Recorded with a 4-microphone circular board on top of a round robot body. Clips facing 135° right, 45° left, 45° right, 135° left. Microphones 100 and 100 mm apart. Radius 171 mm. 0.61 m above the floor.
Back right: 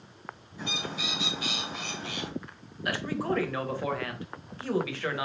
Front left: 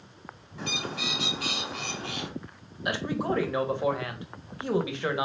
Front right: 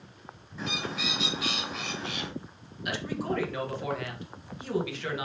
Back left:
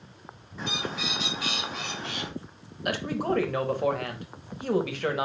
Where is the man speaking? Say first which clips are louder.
Front left 1 dB, back left 4 dB; 110° left, 1.2 m.